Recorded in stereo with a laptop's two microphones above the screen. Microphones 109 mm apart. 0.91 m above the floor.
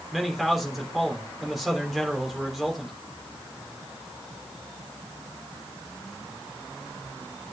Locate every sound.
0.1 s a man speaking: centre (ahead or behind), 3.5 m